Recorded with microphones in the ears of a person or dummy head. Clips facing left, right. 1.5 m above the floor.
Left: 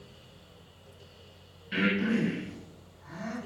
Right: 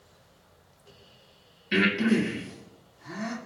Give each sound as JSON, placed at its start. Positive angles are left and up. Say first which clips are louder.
{"t": 1.7, "sound": "breathing", "louder": "right 4 dB", "side_deg": -70, "distance_m": 2.0}